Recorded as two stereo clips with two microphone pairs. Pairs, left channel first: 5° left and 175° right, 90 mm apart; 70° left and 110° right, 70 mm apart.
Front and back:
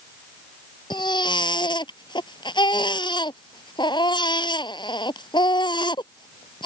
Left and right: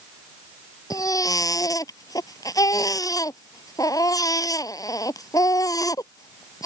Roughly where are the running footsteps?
I don't hear running footsteps.